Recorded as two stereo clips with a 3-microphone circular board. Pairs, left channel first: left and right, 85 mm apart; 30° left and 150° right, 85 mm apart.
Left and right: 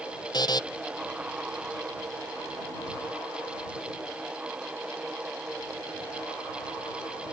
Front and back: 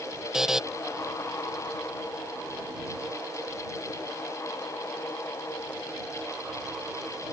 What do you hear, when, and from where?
0.3 s a buzzer: 125° left